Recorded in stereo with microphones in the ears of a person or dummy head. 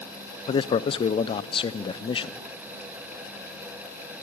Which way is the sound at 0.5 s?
35° left (ahead or behind).